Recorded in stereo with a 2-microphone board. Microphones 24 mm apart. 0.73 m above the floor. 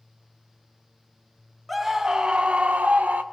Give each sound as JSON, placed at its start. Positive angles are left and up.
{"t": 1.7, "sound": "a scream", "side_deg": 0, "distance_m": 1.2}